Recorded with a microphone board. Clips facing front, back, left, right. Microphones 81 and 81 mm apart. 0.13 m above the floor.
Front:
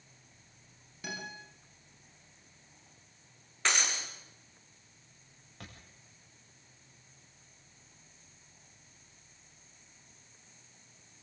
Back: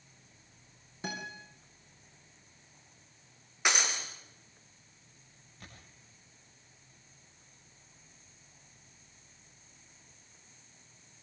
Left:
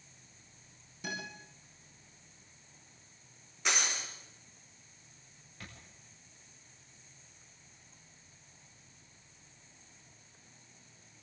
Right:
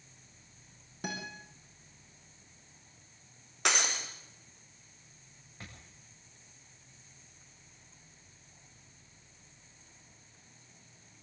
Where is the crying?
I don't hear crying.